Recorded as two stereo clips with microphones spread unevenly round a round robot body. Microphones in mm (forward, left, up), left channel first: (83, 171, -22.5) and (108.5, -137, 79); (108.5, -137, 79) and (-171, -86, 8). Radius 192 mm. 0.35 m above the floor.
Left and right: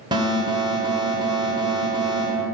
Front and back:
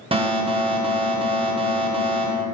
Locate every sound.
0.1 s an alarm: straight behind, 1.2 m